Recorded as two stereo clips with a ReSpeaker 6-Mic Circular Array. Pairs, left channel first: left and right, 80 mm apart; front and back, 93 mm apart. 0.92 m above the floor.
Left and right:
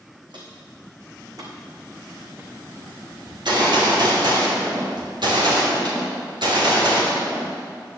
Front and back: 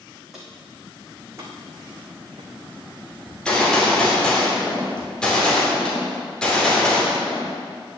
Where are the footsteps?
95° right, 3 m; by 2.5 s 155° right, 3.5 m.